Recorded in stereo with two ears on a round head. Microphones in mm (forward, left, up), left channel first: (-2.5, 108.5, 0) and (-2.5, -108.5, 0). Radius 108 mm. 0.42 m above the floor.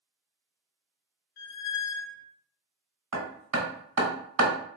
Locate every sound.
1.4 s a squeak: 45° left (ahead or behind), 0.8 m
3.1 s hammering: 70° right (ahead or behind), 2.5 m